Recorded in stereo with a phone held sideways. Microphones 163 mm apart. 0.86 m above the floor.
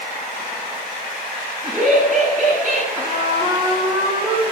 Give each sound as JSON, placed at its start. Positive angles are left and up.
{"t": 1.6, "sound": "laughter", "side_deg": -60, "distance_m": 7.5}
{"t": 3.0, "sound": "a trumpet", "side_deg": -30, "distance_m": 6.5}